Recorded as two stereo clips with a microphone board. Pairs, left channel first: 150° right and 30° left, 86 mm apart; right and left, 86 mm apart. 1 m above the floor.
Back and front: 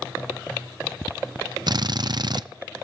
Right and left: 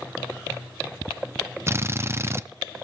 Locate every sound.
1.7 s a drill: 40° left, 0.5 m